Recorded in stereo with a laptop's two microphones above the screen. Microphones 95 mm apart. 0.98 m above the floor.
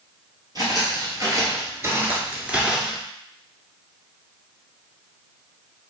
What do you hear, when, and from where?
0.6 s footsteps: 45° right (ahead or behind), 1.4 m; by 3.0 s centre (ahead or behind), 0.9 m